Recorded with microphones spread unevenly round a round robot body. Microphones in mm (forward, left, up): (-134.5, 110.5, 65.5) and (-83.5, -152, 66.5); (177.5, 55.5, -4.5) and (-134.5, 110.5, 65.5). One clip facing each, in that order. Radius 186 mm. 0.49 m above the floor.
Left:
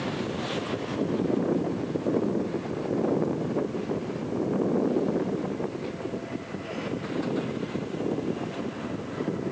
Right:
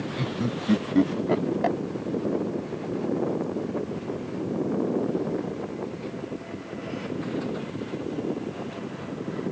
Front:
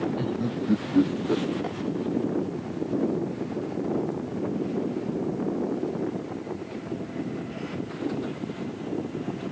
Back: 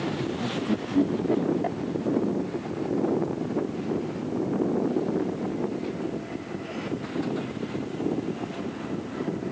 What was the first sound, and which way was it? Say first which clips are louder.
Laughter: right 2 dB, front 1 dB; 80° right.